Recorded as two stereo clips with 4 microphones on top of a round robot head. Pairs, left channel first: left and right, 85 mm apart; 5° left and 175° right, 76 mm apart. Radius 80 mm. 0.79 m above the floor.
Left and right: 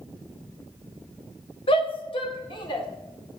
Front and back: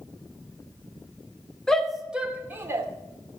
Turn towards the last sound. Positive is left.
turn(degrees=135)